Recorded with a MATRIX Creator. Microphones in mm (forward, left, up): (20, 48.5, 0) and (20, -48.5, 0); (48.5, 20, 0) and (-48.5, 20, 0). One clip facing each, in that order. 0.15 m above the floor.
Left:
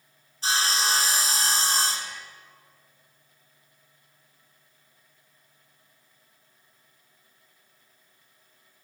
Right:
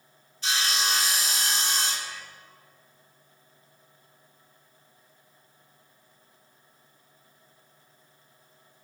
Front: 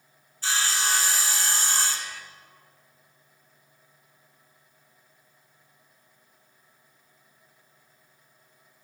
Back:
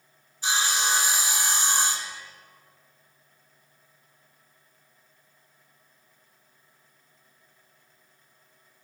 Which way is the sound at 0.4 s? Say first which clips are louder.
Left 3 dB, back 1 dB; 120° left.